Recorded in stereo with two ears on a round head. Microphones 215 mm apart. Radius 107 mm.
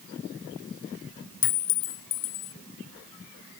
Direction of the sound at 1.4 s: 55° left (ahead or behind).